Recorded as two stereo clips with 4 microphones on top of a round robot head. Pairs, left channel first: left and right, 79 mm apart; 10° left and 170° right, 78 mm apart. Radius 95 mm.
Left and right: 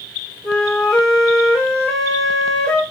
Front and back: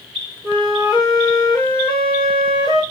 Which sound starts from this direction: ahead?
A flute, at 0.4 s.